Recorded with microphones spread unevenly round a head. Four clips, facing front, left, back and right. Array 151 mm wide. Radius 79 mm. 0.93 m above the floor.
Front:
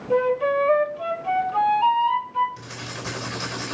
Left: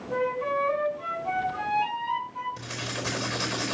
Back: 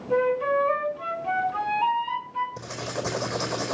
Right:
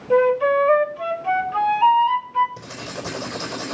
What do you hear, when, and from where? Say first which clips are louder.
0.1 s a flute: right 11 dB, front 2 dB; 65° right, 4 m
2.6 s writing: right 2 dB, back 4 dB; 160° right, 4 m